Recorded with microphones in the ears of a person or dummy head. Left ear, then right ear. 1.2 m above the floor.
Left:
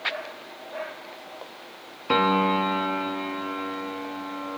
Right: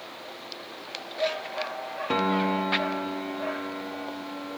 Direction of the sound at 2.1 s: 30° left (ahead or behind).